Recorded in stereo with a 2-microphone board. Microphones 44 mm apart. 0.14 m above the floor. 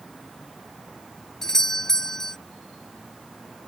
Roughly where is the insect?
Centre.